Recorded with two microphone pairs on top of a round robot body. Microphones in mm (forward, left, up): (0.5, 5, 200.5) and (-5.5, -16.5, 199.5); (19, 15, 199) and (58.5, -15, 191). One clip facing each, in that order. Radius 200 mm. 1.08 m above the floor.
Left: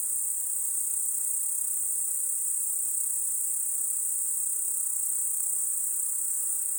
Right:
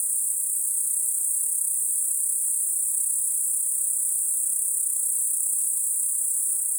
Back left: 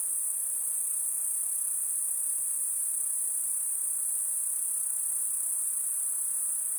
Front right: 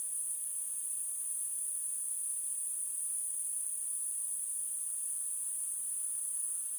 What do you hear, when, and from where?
0.0 s an insect: 140° left, 1.5 m